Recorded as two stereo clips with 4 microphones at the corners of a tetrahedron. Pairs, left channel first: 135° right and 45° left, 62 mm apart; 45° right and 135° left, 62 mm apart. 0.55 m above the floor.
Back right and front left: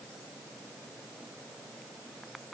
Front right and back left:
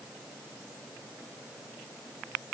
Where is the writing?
No writing in this recording.